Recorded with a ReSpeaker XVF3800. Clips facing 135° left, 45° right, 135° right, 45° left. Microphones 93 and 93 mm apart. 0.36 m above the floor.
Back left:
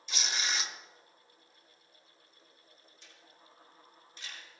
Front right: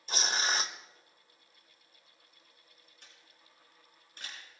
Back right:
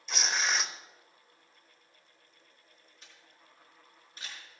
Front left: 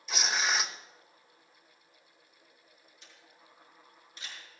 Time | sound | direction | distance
0.1 | tearing paper | 40° right | 0.9 m
3.0 | a camera shutter | 85° right | 6 m